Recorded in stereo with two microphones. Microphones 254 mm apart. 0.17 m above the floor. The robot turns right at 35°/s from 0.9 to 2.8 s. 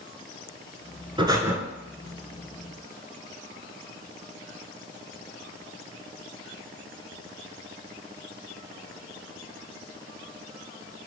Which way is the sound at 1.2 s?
20° right (ahead or behind).